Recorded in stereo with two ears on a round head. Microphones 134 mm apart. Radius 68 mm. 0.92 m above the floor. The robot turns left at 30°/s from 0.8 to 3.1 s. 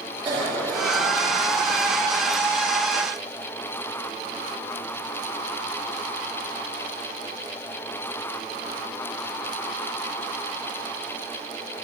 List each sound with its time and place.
0.2 s a cough: 30° right (ahead or behind), 1.3 m; by 1.9 s 60° right (ahead or behind), 1.3 m